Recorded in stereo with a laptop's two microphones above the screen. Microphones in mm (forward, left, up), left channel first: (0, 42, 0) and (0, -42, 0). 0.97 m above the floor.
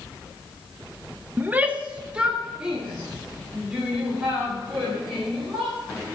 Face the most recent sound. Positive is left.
turn(degrees=-5)  # may be behind; listen again after turning